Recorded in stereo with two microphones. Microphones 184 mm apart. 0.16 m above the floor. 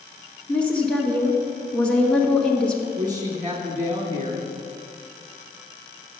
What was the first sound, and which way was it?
A woman speaking, 5° left (ahead or behind).